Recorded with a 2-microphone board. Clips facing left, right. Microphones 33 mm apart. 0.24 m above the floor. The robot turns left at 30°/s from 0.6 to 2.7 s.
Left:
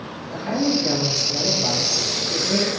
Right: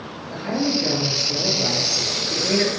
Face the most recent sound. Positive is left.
turn(degrees=-80)